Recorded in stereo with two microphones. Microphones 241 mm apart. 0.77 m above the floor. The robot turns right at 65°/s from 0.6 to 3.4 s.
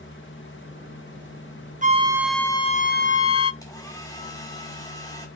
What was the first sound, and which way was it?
A flute, 30° right.